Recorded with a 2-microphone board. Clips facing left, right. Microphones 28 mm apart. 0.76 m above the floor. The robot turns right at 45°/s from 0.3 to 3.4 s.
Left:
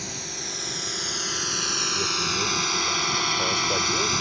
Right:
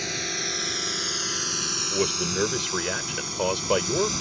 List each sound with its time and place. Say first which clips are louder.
0.0 s a drone: right 5 dB; 30° right (ahead or behind); by 4.2 s 30° left (ahead or behind)
1.9 s a man speaking: left 1 dB; 110° right; by 4.1 s 40° right